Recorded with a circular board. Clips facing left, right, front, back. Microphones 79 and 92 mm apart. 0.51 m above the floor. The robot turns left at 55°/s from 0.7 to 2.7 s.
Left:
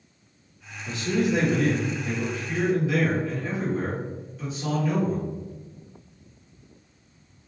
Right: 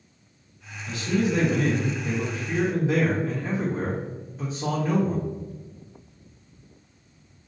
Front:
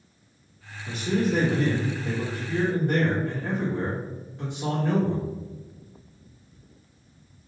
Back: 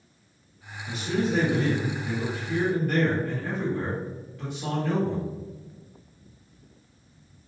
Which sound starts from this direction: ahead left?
A man speaking, at 0.9 s.